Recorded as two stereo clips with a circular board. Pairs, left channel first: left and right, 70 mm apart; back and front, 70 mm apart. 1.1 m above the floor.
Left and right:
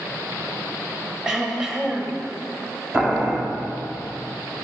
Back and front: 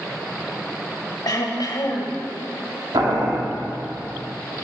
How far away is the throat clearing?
About 1.2 m.